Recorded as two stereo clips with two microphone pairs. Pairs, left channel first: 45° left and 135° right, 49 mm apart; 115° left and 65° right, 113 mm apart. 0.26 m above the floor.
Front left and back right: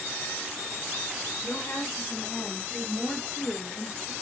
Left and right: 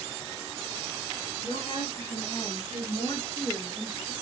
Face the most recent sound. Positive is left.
turn(degrees=-140)